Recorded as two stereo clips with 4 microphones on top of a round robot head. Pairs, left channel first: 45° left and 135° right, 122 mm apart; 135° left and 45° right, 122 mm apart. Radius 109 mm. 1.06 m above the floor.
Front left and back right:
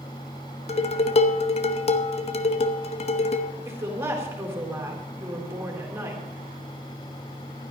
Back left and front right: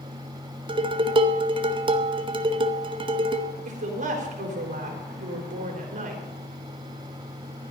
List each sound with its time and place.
0.7 s dishes clattering: 5° left, 0.9 m
3.6 s a woman speaking: 65° right, 4 m